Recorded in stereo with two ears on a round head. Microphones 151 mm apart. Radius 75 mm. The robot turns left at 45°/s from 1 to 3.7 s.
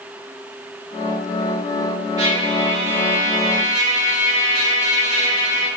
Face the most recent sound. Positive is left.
turn(degrees=-95)